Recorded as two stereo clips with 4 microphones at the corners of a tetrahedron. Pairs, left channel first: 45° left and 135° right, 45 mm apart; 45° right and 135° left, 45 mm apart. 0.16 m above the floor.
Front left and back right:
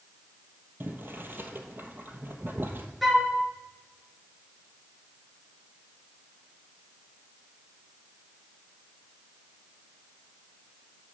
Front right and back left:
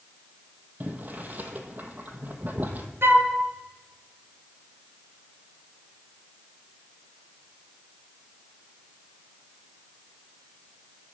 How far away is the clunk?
No clunk in this recording.